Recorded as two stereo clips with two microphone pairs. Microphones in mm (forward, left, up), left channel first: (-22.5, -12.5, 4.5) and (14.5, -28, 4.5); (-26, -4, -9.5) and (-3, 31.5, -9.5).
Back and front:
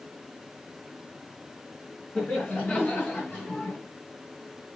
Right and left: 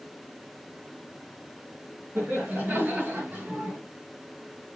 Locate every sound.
2.1 s laughter: 100° left, 4.5 m; by 3.8 s 115° left, 3.5 m